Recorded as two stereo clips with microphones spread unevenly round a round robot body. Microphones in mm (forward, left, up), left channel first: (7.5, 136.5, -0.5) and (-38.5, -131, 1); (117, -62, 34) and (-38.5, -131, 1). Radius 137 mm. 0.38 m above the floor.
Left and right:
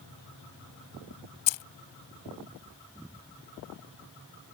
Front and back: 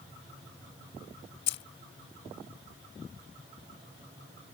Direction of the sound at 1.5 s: 70° left.